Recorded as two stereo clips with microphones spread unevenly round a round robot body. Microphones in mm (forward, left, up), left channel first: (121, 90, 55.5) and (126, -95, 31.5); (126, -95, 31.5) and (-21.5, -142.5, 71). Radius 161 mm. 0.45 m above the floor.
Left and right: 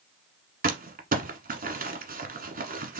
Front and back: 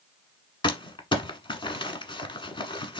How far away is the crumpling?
About 1.3 m.